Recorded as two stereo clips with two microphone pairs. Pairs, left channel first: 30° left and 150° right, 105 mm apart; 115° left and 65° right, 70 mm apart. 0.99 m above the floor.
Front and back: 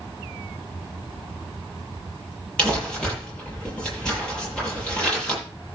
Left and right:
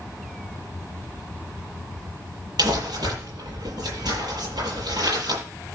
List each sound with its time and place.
2.6 s crumpling: 50° right, 9.5 m